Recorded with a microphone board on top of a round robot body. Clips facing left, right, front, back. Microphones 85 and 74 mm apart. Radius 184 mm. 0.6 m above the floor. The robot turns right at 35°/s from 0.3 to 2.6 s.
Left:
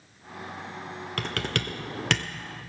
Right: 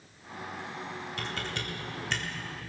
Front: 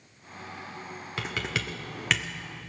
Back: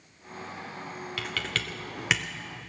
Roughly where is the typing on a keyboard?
Ahead left.